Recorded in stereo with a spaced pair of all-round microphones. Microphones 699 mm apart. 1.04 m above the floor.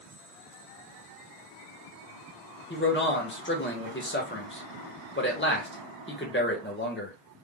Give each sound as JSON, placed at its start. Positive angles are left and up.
{"t": 2.7, "sound": "a man speaking", "side_deg": 15, "distance_m": 0.8}